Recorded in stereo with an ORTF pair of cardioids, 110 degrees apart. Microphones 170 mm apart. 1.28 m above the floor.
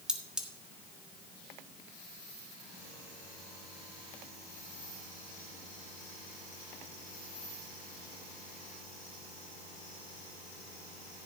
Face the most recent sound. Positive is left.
turn(degrees=-5)